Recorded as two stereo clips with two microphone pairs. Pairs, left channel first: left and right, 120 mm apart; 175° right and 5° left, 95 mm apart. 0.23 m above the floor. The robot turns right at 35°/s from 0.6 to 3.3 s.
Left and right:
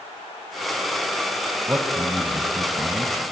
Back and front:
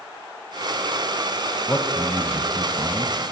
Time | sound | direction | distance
1.7 | a man speaking | 135° right | 1.1 m